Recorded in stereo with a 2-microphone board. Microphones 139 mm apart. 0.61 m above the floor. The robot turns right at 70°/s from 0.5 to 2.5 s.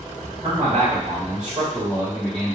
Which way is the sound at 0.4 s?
130° right.